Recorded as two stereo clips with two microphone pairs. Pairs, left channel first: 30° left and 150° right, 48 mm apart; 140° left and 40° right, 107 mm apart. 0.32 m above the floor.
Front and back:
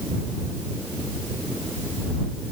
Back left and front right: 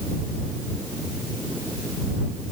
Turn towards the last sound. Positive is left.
No sound to turn to.